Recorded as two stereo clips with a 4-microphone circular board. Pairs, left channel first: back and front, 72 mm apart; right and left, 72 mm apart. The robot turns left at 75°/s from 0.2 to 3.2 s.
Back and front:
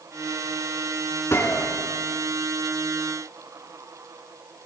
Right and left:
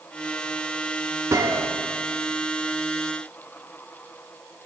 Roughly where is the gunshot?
Behind left.